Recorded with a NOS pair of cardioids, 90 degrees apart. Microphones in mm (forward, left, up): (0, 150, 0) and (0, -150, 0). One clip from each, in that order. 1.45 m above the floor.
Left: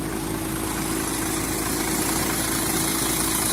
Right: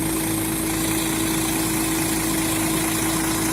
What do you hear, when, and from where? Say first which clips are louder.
0.0 s a machine running: right 4 dB; 65° right, 2.5 m